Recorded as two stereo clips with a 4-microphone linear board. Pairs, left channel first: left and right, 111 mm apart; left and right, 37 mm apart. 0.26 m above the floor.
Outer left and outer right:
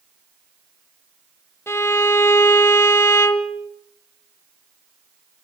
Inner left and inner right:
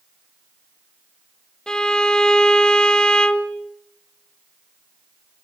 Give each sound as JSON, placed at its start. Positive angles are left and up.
{"t": 1.7, "sound": "a violin", "side_deg": 20, "distance_m": 0.9}